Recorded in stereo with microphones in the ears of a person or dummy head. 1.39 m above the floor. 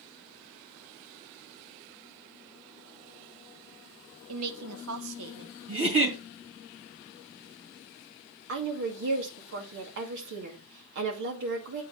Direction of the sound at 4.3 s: 75° right (ahead or behind).